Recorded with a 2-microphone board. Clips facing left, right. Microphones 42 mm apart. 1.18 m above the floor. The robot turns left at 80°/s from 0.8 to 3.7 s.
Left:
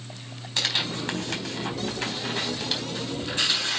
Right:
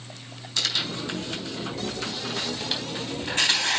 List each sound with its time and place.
0.6 s tearing paper: 30° left (ahead or behind), 4 m; by 3.8 s 80° right, 4 m